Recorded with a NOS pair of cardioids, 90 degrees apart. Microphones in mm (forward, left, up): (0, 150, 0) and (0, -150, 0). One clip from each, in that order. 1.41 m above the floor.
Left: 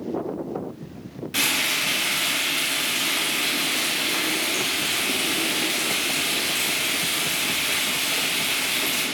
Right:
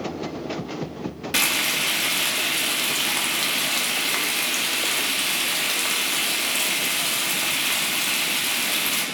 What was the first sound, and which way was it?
Frying, 50° right.